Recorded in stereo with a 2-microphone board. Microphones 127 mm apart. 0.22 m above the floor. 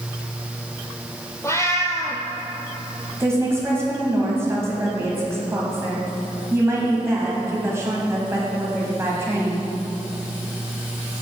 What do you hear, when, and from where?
1.4 s a cat meowing: 20° left (ahead or behind), 0.9 m
3.2 s a woman speaking: 20° right (ahead or behind), 1.3 m